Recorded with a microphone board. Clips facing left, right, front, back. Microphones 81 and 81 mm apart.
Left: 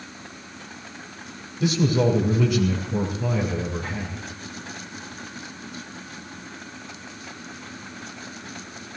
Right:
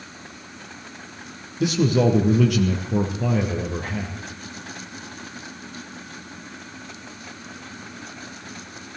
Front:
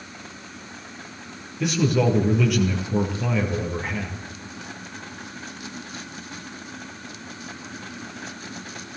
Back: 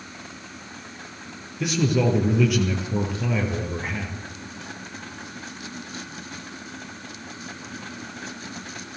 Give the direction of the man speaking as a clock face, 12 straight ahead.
3 o'clock.